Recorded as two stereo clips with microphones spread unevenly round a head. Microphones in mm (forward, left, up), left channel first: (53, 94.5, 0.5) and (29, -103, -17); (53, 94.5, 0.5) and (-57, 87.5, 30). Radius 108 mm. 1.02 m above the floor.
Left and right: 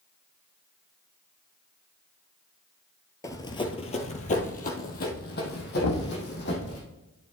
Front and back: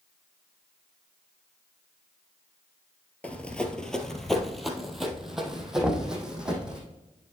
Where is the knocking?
100° left, 1.1 m.